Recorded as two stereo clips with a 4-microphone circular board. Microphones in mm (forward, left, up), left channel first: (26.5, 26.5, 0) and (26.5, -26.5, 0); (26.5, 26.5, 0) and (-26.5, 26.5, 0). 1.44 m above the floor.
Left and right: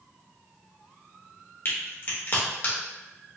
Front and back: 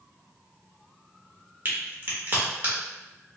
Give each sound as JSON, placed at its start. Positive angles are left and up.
{"t": 1.6, "sound": "a crack", "azimuth_deg": 125, "distance_m": 1.3}